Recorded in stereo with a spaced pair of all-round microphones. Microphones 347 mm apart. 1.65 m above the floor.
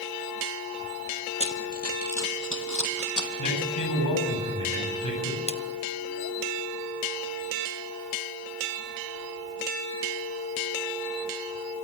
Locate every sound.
1.4 s running footsteps: 35° left (ahead or behind), 2 m; by 3.3 s 60° left (ahead or behind), 3 m
3.4 s a man speaking: 65° left (ahead or behind), 10 m
5.5 s a splash: 15° left (ahead or behind), 1.3 m